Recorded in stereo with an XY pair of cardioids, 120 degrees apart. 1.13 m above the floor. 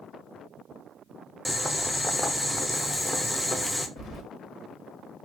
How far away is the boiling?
About 0.5 m.